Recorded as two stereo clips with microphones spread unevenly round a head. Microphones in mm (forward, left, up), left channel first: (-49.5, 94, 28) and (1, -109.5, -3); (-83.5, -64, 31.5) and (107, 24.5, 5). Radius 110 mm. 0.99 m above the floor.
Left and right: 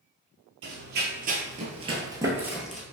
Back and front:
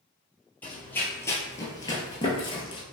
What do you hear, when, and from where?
0.6 s running footsteps: 85° right, 1.3 m; by 2.8 s 175° left, 1.1 m